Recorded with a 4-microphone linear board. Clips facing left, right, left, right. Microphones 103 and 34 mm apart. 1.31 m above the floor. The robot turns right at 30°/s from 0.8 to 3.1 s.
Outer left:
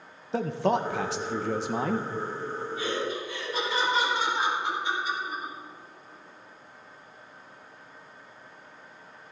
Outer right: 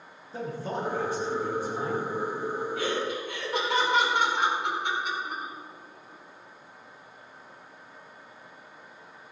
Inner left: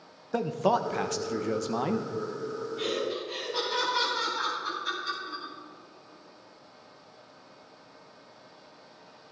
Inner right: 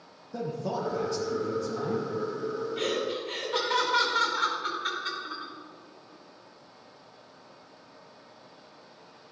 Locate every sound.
0.3 s a man speaking: 75° left, 1.2 m; by 2.1 s 115° left, 1.2 m
2.8 s laughter: 75° right (ahead or behind), 4.5 m; by 5.5 s 65° right (ahead or behind), 4.5 m